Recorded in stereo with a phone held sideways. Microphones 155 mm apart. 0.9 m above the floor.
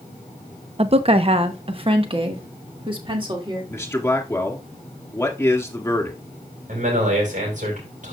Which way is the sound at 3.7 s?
15° left (ahead or behind).